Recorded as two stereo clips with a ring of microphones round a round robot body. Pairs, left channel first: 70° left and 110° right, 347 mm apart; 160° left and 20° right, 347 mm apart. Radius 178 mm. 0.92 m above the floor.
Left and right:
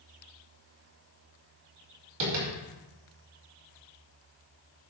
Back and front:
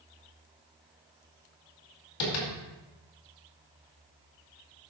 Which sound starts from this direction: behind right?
Tapping, at 2.2 s.